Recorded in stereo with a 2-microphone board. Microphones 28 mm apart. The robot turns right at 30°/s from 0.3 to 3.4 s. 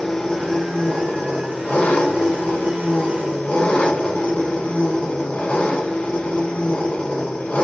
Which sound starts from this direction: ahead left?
An engine running, at 0.0 s.